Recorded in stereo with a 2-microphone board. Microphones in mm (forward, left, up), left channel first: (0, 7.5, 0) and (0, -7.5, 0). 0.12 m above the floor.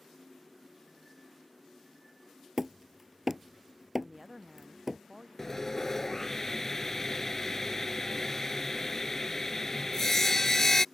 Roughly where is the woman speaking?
Right.